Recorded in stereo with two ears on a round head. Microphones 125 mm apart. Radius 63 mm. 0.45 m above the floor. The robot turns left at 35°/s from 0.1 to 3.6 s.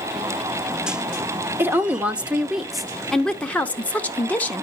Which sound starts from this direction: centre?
A woman speaking, at 1.6 s.